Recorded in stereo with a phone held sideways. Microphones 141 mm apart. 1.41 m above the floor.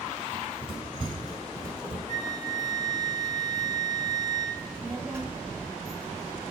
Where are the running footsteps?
45° right (ahead or behind), 1.8 m; by 2.0 s 15° right (ahead or behind), 1.6 m.